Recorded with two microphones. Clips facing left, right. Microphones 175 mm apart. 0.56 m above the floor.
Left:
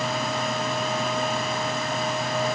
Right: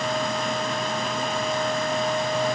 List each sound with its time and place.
Only background noise.